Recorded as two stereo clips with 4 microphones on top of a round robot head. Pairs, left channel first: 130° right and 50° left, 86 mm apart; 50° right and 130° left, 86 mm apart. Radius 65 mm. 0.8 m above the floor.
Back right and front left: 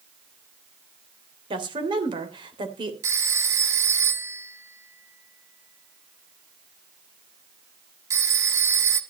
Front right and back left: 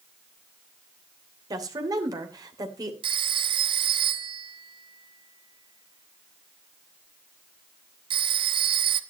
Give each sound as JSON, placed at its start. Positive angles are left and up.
{"t": 1.5, "sound": "a woman speaking", "azimuth_deg": 85, "distance_m": 3.0}
{"t": 3.0, "sound": "a phone ringing", "azimuth_deg": 110, "distance_m": 1.3}